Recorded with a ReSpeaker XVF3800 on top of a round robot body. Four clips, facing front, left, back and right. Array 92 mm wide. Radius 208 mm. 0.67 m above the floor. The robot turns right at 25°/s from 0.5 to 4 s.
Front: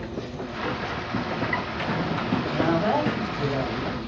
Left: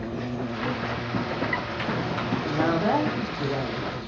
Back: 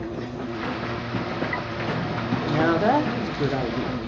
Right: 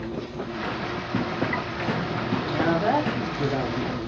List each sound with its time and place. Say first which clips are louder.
0.0 s an insect: left 1 dB, back 2 dB; 120° left, 1.4 m; by 4.1 s 155° right, 1.4 m
2.5 s a woman speaking: right 1 dB, back 4 dB; 165° left, 2.5 m; by 4.0 s 155° right, 2.5 m